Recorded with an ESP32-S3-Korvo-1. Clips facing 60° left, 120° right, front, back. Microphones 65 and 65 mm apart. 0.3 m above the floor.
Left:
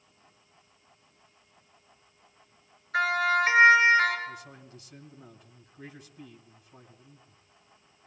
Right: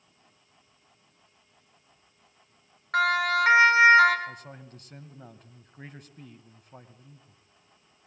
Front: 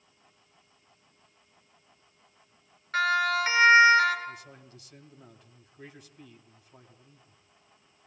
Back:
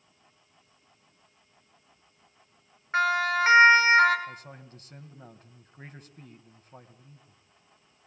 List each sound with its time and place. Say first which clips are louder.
2.9 s a siren: right 1 dB, back 1 dB; 115° right, 4.5 m; by 4.2 s 130° right, 4.5 m
4.3 s a man speaking: right 1 dB, even; 145° right, 2.5 m